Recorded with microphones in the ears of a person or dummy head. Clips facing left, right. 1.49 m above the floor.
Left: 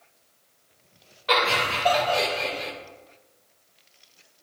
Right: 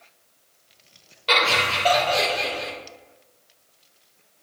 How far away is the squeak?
I don't hear a squeak.